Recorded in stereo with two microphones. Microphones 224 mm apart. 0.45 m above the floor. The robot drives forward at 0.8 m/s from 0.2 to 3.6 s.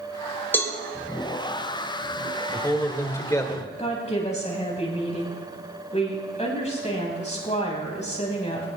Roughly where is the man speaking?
Centre.